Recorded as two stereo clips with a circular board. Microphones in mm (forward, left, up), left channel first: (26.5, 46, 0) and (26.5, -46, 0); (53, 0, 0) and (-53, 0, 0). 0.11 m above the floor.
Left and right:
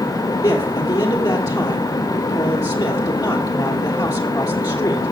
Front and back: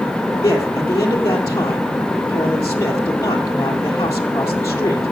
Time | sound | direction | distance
0.4 | a man speaking | 55° left | 2.5 m